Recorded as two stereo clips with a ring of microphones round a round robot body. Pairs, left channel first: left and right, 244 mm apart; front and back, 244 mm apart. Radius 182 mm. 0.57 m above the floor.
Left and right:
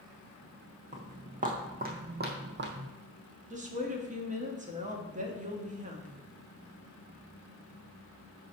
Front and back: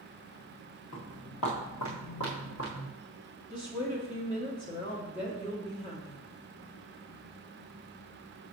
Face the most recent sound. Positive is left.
turn(degrees=-60)